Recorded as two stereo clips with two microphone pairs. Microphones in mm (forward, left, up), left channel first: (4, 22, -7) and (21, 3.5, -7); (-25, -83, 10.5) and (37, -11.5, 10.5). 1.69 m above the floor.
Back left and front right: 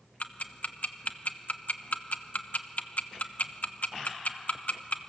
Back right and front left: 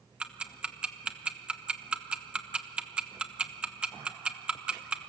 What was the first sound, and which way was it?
Ticking, 130° left.